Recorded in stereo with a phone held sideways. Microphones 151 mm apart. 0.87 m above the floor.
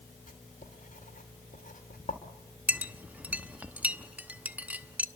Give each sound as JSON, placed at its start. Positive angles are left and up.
{"t": 0.3, "sound": "writing", "side_deg": 60, "distance_m": 3.0}
{"t": 2.7, "sound": "a clink", "side_deg": -10, "distance_m": 0.9}